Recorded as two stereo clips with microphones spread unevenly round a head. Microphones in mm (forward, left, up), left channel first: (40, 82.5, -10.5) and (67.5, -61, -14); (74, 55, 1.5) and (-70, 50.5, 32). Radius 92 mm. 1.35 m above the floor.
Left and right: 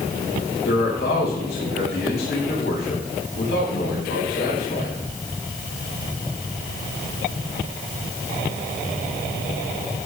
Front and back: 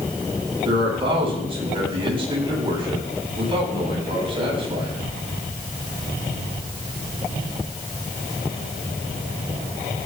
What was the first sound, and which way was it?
A man speaking, 130° left.